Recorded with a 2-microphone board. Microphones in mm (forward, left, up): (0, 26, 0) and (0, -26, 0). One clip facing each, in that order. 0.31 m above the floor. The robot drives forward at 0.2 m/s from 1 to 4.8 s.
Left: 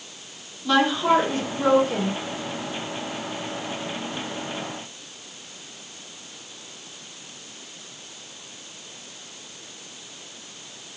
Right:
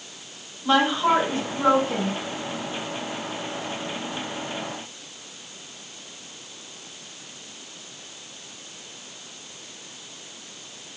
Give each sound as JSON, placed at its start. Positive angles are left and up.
{"t": 0.6, "sound": "a woman speaking", "side_deg": -25, "distance_m": 2.0}